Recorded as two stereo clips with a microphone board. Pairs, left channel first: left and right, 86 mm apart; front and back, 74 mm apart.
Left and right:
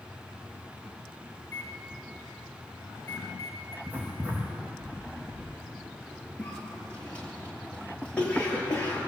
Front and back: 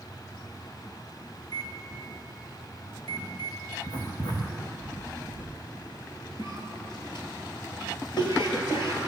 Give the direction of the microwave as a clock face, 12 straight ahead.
11 o'clock.